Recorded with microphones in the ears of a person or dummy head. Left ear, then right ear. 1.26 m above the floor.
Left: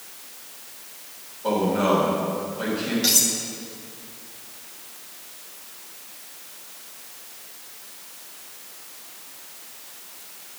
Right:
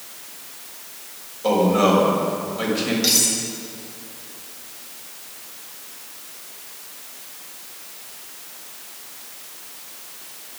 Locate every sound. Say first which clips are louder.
1.4 s a man speaking: right 4 dB; 50° right (ahead or behind), 5 m
3.0 s cutlery clinking: right 1 dB; 5° right (ahead or behind), 1.2 m